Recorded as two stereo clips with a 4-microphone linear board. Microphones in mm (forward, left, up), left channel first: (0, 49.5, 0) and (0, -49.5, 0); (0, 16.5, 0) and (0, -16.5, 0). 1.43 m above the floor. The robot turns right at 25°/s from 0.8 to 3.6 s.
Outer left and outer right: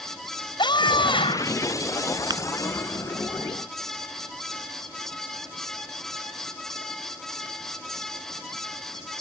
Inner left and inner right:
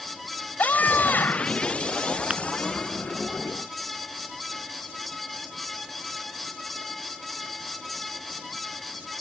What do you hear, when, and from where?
0.6 s a scream: 50° left (ahead or behind); by 1.6 s 70° left (ahead or behind)
2.3 s tapping: 45° right (ahead or behind); by 2.4 s 40° right (ahead or behind)